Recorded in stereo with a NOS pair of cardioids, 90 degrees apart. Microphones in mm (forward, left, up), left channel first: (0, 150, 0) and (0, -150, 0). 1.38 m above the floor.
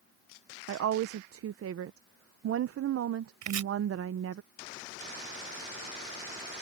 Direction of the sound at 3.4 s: 70° right.